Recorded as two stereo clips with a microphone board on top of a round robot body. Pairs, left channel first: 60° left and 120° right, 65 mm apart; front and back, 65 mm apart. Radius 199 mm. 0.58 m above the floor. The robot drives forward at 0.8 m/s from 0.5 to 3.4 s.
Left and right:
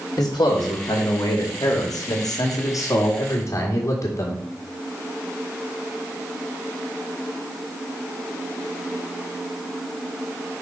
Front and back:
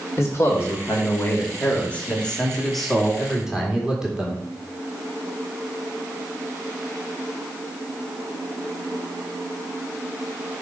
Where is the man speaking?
45° left, 3 m; by 4.4 s 100° left, 2.5 m.